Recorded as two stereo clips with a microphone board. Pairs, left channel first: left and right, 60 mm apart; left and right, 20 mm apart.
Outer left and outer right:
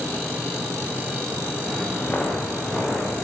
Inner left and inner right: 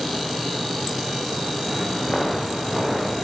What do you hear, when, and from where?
1.7 s footsteps: 20° left (ahead or behind), 10 m